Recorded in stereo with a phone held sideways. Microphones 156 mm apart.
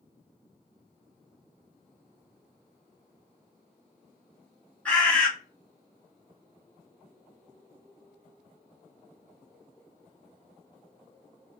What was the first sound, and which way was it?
A bird, 10° left (ahead or behind).